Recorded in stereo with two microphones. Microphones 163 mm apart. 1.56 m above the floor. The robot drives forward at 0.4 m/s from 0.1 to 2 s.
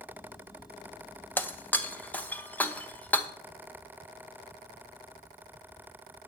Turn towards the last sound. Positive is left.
turn(degrees=10)  # may be behind; listen again after turning